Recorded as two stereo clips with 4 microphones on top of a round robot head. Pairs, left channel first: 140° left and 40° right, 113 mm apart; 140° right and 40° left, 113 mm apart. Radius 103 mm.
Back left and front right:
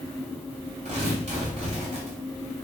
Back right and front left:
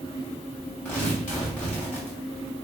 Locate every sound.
0.8 s tearing paper: 55° right, 3 m